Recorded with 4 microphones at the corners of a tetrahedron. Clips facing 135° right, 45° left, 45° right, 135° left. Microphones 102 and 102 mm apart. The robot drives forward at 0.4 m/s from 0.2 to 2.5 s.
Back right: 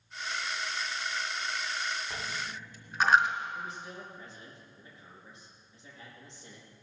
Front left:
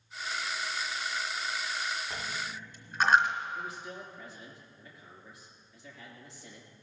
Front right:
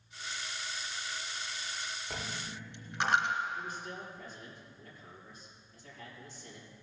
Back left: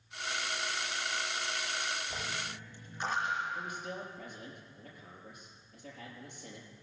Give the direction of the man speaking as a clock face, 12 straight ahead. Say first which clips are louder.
Front left 1 dB, back left 1 dB; 7 o'clock.